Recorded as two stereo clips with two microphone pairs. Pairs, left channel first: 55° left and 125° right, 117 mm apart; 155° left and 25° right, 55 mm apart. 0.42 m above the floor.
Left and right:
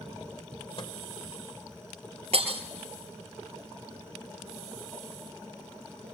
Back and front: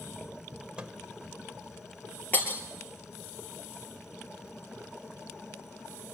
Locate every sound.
0.8 s a microwave: 40° left, 1.4 m
2.3 s breaking glass: 155° right, 3 m